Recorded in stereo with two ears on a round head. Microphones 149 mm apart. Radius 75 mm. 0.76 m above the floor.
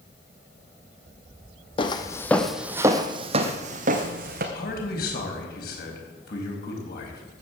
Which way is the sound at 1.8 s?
30° left (ahead or behind).